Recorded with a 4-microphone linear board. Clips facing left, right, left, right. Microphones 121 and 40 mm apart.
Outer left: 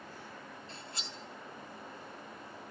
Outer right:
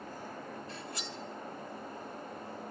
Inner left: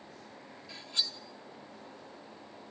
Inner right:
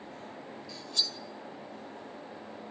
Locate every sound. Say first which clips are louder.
0.7 s cutlery clinking: outer right 5 dB, inner right 1 dB; 30° left (ahead or behind), 2 m